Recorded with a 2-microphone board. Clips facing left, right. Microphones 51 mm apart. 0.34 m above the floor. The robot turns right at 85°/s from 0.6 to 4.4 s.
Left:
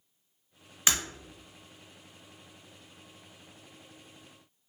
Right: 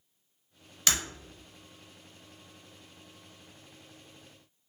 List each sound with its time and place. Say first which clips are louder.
0.9 s breaking glass: left 1 dB; 20° left (ahead or behind), 1.1 m; by 1.0 s 10° left (ahead or behind), 1.1 m